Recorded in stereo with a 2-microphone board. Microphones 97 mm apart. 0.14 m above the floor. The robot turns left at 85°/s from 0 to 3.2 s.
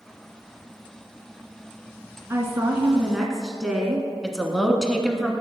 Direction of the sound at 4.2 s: 5° left (ahead or behind).